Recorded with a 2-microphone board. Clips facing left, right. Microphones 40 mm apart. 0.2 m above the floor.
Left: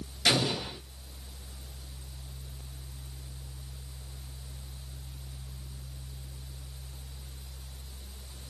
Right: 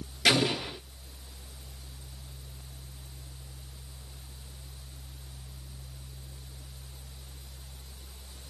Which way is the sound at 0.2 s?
60° right (ahead or behind).